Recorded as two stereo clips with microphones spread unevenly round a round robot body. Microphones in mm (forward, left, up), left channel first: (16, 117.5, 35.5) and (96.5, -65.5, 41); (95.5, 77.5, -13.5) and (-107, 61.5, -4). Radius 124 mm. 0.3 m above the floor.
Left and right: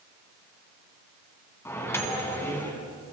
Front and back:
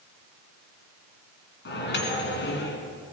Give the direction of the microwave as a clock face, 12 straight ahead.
11 o'clock.